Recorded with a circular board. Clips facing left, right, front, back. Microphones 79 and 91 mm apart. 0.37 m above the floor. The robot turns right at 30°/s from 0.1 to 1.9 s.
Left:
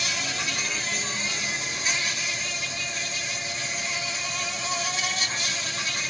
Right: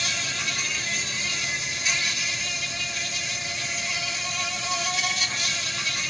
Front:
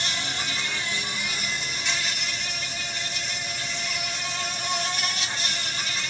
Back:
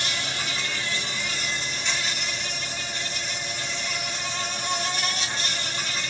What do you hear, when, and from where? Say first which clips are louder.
0.0 s an insect: left 1 dB, even; 35° left, 1.9 m; by 6.1 s 90° left, 1.9 m